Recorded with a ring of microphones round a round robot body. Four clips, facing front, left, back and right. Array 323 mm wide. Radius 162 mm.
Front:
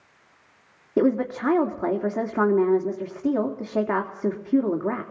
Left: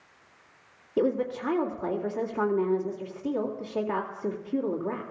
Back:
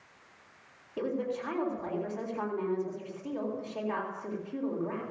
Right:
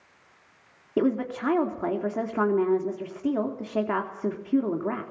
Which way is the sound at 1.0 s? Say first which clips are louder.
Right 1 dB, front 11 dB; 30° right.